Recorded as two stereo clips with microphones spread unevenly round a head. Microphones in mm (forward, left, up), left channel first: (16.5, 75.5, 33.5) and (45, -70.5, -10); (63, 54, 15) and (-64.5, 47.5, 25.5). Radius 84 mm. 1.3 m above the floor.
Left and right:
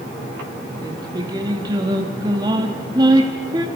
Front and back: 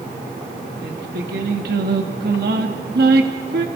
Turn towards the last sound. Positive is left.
turn(degrees=-150)